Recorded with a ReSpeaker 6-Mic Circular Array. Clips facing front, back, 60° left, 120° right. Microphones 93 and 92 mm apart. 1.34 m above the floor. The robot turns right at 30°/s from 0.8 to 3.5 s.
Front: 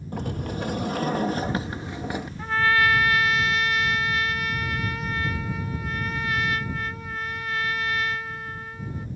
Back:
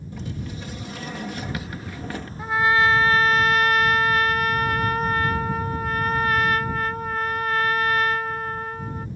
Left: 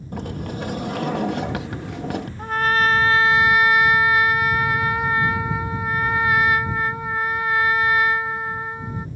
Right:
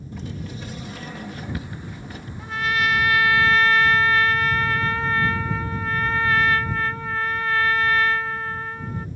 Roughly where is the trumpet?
Left.